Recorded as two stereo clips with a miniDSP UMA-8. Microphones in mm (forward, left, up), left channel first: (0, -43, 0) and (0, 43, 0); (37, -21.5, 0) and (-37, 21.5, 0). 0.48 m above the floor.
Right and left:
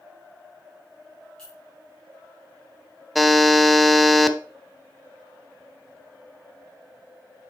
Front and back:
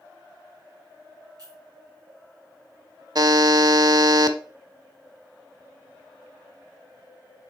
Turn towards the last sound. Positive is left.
turn(degrees=180)